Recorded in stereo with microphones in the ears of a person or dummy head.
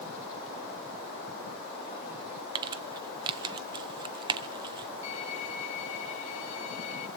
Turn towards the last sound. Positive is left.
turn(degrees=80)